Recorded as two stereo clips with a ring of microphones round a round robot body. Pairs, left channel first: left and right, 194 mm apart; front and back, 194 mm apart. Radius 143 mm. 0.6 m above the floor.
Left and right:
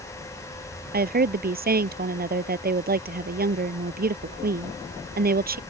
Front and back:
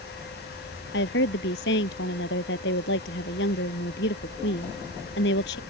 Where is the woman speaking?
50° right.